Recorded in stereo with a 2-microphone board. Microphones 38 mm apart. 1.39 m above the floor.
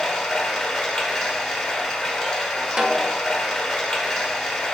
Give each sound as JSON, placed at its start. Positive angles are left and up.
{"t": 0.0, "sound": "running water", "side_deg": 5, "distance_m": 1.0}
{"t": 2.8, "sound": "a snare drum", "side_deg": -15, "distance_m": 0.6}